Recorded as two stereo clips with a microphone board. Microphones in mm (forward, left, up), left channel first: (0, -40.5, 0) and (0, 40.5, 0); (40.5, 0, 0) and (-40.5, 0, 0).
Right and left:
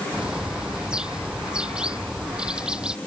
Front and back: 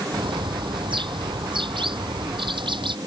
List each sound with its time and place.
0.1 s a bird: 170° left